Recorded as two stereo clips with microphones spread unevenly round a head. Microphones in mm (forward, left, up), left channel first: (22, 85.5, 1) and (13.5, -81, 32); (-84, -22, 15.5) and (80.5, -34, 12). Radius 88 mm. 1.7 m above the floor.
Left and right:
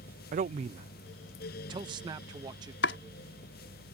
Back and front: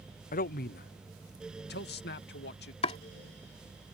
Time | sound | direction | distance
0.3 | a man speaking | 140° right | ?
2.8 | chopping | 120° left | ?